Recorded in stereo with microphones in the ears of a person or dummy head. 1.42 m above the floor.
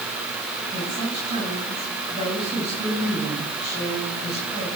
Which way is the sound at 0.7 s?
30° right (ahead or behind).